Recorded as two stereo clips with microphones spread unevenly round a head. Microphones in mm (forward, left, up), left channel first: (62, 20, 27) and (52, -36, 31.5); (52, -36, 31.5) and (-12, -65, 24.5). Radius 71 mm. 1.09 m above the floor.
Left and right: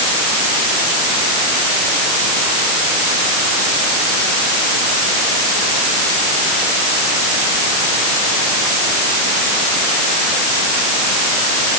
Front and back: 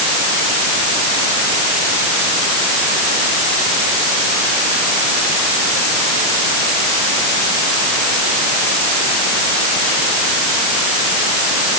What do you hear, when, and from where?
Only background noise.